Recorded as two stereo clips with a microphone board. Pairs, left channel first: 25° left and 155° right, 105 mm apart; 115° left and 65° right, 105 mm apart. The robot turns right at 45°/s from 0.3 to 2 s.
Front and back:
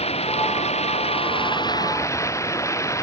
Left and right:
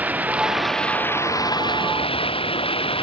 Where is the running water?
5° left; by 3.0 s 85° left.